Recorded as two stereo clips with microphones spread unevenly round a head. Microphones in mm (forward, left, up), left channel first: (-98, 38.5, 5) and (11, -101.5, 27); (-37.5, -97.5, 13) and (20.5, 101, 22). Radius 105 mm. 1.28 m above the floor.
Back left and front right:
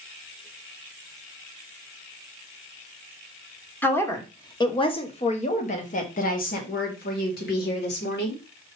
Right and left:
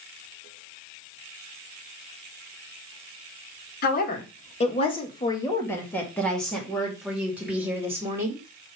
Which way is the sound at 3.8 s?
155° right.